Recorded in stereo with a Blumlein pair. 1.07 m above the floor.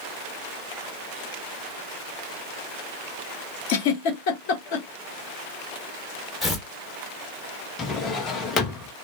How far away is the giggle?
About 1.0 m.